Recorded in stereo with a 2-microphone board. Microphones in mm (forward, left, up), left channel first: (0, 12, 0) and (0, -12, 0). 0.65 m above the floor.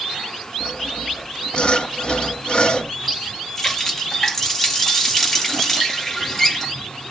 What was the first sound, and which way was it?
Sawing, 40° left (ahead or behind).